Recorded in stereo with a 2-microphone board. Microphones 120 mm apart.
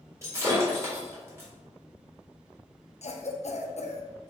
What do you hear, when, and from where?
0.2 s breaking glass: 20° right (ahead or behind), 1.5 m
3.0 s a cough: 65° left (ahead or behind), 0.6 m